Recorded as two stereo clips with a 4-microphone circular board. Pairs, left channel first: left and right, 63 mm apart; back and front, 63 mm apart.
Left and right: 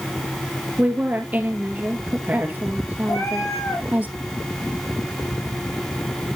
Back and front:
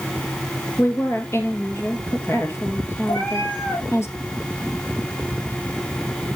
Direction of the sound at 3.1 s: 120° left.